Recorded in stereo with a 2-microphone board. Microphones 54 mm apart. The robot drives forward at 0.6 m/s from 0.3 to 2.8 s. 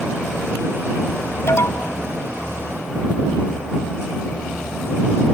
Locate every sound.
1.5 s an alarm: 55° left (ahead or behind)